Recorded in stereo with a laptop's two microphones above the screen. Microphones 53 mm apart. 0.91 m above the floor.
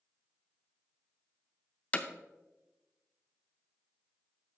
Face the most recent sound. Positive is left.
turn(degrees=30)  # may be behind; listen again after turning